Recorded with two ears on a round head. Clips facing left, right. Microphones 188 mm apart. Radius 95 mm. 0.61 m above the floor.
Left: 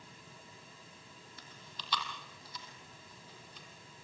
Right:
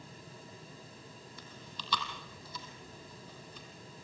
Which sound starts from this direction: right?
Chewing, at 1.4 s.